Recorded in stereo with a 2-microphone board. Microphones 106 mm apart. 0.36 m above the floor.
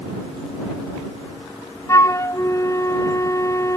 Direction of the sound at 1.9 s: 25° left (ahead or behind).